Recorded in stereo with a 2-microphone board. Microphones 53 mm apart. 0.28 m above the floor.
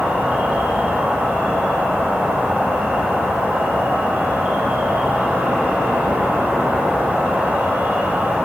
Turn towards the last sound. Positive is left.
turn(degrees=-30)  # may be behind; listen again after turning